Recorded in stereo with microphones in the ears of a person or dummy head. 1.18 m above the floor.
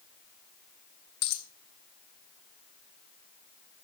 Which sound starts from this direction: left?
A dropped coin, at 1.2 s.